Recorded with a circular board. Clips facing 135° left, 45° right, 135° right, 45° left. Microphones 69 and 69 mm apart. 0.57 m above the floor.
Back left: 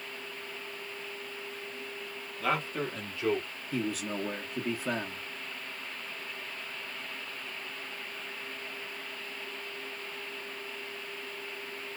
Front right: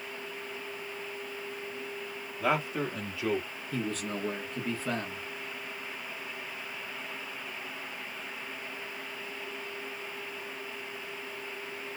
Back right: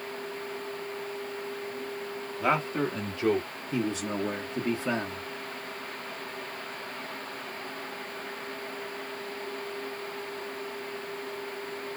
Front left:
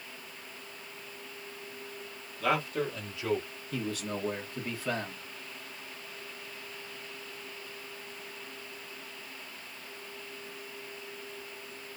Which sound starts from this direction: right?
A man speaking, at 2.4 s.